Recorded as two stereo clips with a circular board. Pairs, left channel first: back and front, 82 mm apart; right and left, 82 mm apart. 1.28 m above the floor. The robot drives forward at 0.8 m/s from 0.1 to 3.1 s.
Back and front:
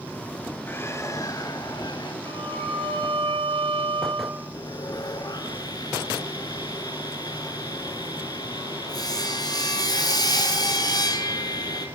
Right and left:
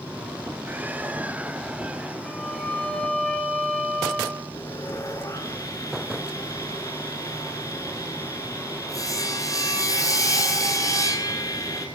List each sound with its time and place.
0.7 s a bird: 140° left, 1.1 m; by 2.1 s 165° left, 1.9 m
2.2 s a violin: 10° right, 8.5 m
4.5 s sawing: 140° right, 6.5 m